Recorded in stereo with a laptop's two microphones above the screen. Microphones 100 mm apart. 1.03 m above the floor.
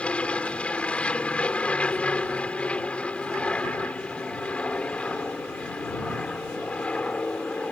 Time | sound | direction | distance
0.0 | an aircraft | 10° left (ahead or behind) | ?